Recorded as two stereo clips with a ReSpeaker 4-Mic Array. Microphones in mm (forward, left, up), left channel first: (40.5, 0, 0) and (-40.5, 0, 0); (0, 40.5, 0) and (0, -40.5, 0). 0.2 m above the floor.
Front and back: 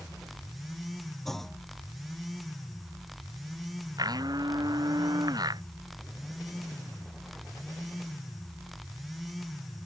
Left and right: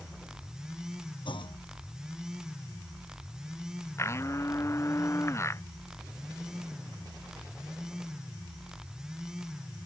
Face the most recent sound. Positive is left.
turn(degrees=145)